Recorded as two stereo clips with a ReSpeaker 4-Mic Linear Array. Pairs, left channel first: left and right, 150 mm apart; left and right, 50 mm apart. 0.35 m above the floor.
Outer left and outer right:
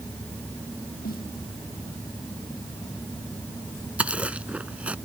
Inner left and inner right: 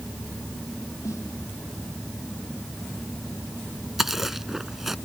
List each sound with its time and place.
1.0 s a snare drum: 80° left
4.0 s chewing: 10° right (ahead or behind)